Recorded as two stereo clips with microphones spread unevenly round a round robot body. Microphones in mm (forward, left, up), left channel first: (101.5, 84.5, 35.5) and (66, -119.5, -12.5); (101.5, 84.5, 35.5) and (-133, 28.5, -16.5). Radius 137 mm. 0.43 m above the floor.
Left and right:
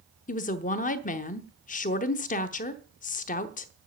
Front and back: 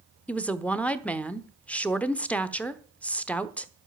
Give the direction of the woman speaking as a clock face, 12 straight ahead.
8 o'clock.